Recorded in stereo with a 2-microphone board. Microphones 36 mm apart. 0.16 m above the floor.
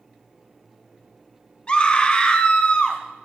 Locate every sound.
1.7 s a scream: 30° left (ahead or behind), 1.5 m